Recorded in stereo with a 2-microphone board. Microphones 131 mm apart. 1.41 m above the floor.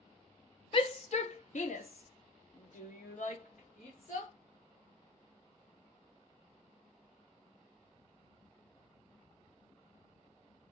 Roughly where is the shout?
Left.